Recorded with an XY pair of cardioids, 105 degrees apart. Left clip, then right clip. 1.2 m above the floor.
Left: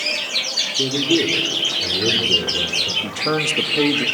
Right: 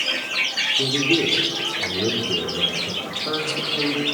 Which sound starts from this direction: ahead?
A man speaking, at 0.7 s.